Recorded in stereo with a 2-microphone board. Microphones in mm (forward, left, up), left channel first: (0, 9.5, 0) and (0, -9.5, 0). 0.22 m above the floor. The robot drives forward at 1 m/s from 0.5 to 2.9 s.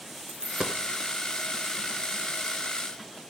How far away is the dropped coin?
About 1.1 m.